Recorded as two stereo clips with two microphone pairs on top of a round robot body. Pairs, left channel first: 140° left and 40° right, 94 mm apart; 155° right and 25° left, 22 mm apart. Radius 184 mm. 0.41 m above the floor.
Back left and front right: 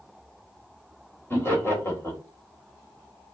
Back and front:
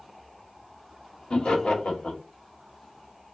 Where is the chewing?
No chewing in this recording.